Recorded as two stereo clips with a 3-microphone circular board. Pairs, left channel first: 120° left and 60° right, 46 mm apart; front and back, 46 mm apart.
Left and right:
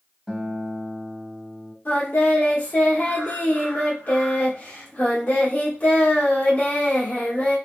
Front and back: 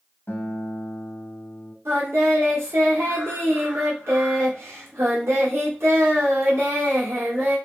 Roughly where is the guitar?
Ahead.